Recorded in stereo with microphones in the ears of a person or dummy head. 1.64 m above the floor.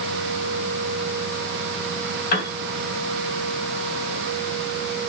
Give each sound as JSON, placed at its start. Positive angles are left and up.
{"t": 2.3, "sound": "a piano", "side_deg": 55, "distance_m": 3.0}